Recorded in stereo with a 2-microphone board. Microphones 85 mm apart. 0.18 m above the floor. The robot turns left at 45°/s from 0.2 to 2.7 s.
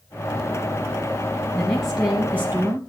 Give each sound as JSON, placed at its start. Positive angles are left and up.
{"t": 1.5, "sound": "a woman speaking", "azimuth_deg": 15, "distance_m": 3.0}